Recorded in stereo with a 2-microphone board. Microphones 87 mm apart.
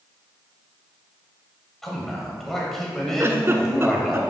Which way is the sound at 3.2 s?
30° right (ahead or behind).